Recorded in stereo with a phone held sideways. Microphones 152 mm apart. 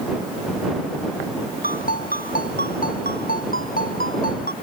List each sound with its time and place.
1.6 s a ringtone: 70° left (ahead or behind)